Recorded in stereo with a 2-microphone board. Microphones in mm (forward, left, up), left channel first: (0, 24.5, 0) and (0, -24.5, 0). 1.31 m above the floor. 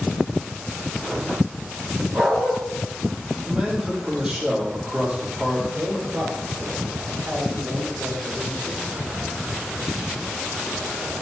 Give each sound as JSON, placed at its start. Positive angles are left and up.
{"t": 2.1, "sound": "a dog barking", "side_deg": -50, "distance_m": 3.5}
{"t": 3.5, "sound": "a man speaking", "side_deg": -25, "distance_m": 3.0}
{"t": 5.7, "sound": "a man speaking", "side_deg": -70, "distance_m": 4.0}